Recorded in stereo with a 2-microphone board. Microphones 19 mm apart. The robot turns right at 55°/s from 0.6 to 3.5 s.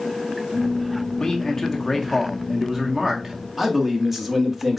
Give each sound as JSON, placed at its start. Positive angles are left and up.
{"t": 1.2, "sound": "a man speaking", "azimuth_deg": 125, "distance_m": 1.2}
{"t": 3.6, "sound": "a man speaking", "side_deg": -20, "distance_m": 1.3}